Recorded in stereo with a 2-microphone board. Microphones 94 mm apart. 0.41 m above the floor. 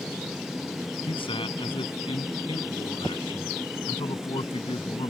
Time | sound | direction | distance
1.1 | a man speaking | 70° left (ahead or behind) | ?